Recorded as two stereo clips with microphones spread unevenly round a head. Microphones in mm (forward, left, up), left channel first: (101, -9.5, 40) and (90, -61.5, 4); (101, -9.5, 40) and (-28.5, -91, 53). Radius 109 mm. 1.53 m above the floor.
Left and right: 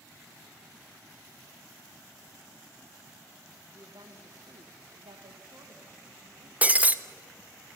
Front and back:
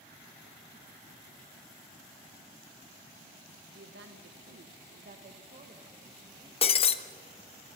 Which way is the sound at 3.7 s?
175° right.